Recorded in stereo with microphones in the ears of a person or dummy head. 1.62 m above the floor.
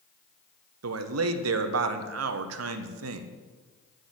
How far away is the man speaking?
About 0.9 m.